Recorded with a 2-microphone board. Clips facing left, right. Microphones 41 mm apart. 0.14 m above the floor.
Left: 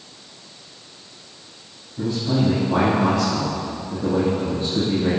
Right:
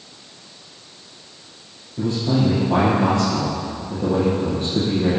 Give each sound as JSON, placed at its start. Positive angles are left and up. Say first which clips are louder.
{"t": 2.0, "sound": "a man speaking", "louder": "right 1 dB", "side_deg": -60, "distance_m": 3.0}